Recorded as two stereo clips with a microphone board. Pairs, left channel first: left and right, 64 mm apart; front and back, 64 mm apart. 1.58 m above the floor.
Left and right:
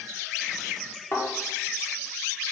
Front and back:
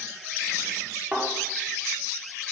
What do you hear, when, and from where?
1.1 s a thud: 110° left, 1.4 m